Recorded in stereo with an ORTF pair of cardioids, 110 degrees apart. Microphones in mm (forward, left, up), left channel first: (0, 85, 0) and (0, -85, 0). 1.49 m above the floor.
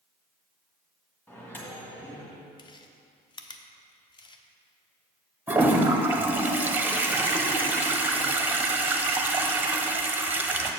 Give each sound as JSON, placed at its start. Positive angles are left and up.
{"t": 1.3, "sound": "a microwave", "azimuth_deg": 10, "distance_m": 1.6}
{"t": 2.6, "sound": "chewing", "azimuth_deg": 30, "distance_m": 0.7}
{"t": 5.5, "sound": "a toilet flushing", "azimuth_deg": -10, "distance_m": 0.7}